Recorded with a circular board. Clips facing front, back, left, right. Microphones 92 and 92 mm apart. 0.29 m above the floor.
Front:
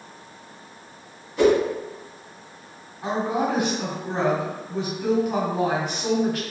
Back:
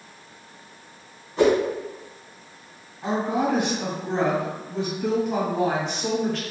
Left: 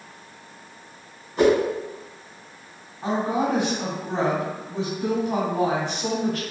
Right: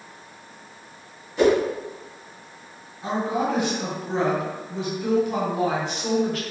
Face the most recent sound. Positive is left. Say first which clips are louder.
# even, left 1 dB
turn(degrees=75)